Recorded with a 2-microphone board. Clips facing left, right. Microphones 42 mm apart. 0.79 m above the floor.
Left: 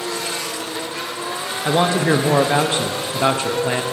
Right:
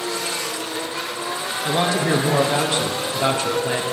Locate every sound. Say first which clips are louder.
1.6 s a man speaking: left 3 dB; 25° left (ahead or behind), 0.5 m